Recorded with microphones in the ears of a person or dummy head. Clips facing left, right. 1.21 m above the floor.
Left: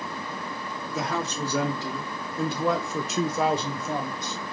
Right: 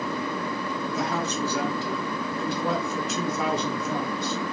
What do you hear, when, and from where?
0.9 s a man speaking: 70° left (ahead or behind), 1.5 m; by 4.4 s 15° left (ahead or behind), 1.0 m